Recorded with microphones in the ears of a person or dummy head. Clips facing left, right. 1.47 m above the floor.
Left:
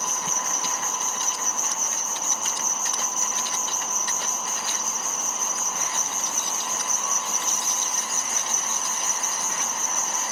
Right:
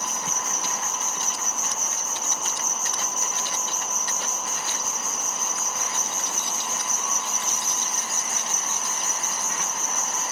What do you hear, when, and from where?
0.0 s an insect: 15° right (ahead or behind), 1.1 m